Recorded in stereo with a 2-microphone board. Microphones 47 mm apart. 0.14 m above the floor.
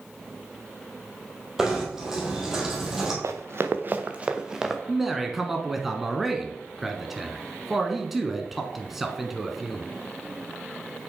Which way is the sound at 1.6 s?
10° right (ahead or behind).